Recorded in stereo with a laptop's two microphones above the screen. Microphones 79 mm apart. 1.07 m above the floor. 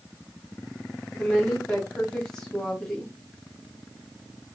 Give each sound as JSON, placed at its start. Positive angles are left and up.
{"t": 1.1, "sound": "a woman speaking", "side_deg": 10, "distance_m": 1.1}